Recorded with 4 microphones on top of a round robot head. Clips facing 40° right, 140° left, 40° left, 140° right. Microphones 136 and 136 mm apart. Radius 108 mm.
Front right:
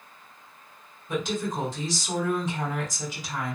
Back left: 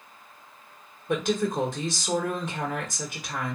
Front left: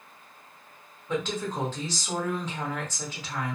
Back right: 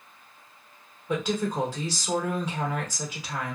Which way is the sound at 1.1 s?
145° left.